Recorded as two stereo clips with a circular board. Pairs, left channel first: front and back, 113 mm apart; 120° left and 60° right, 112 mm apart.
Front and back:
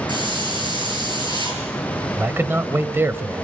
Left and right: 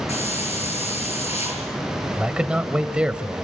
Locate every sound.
0.1 s a hiss: 135° left, 6.5 m
2.2 s a man speaking: 130° right, 1.0 m